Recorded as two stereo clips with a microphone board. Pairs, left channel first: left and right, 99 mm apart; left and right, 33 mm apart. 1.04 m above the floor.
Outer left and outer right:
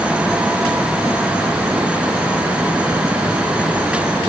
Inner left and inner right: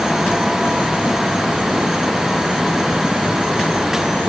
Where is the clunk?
I don't hear a clunk.